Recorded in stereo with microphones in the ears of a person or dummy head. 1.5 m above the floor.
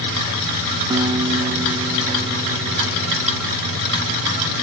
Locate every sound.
0.9 s a guitar: 15° right (ahead or behind)